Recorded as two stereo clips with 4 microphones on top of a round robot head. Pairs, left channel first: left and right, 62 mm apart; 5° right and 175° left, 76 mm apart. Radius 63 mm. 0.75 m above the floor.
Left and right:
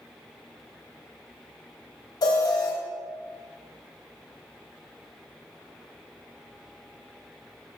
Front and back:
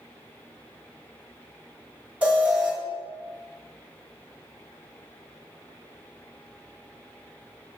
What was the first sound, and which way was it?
An alarm, 100° left.